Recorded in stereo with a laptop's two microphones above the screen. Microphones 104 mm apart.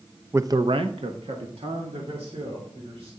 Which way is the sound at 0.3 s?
20° right (ahead or behind).